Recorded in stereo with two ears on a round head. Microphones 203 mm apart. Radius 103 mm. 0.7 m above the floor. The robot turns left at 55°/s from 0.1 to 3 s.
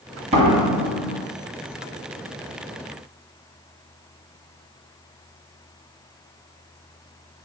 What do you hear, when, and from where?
0.3 s a door slam: 145° right, 2.5 m; by 1.3 s 160° left, 2.5 m